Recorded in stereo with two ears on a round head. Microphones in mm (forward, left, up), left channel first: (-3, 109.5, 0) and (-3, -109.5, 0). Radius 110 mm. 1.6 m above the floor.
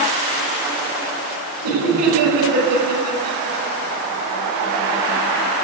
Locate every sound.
1.6 s laughter: 85° right, 6.5 m; by 3.6 s 75° right (ahead or behind), 7.5 m